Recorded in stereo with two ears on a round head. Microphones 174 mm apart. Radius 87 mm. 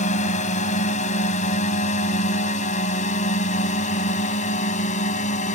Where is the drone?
40° left (ahead or behind).